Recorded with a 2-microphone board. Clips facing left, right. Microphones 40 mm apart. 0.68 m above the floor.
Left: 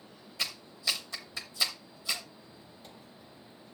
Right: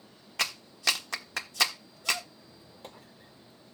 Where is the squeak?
65° right (ahead or behind), 2.5 m.